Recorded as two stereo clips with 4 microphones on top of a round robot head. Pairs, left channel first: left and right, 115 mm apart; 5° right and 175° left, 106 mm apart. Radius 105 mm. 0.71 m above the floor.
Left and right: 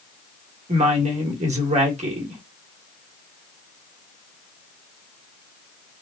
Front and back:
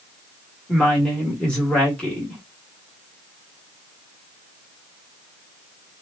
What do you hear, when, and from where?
0.7 s a woman speaking: 90° right, 1.9 m